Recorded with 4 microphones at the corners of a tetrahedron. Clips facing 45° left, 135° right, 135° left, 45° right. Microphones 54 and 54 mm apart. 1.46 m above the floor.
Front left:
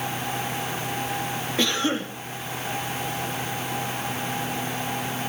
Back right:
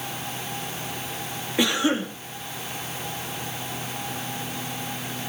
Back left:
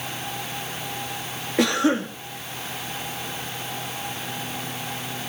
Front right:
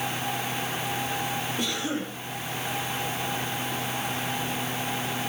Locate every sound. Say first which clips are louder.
1.6 s a cough: back right 3 dB, back left 9 dB; 145° left, 3.5 m